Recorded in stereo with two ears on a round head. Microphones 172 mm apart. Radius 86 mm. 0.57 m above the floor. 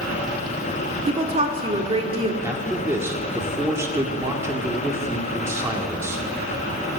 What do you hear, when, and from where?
1.1 s a woman speaking: 30° right (ahead or behind), 1.5 m
2.4 s a man speaking: 15° right (ahead or behind), 1.7 m